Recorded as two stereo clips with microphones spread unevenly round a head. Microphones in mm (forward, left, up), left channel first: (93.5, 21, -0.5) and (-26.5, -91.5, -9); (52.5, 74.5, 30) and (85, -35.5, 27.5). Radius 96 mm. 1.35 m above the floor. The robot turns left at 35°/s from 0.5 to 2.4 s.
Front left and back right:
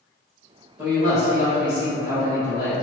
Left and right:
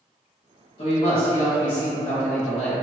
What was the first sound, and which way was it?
A man speaking, 140° left.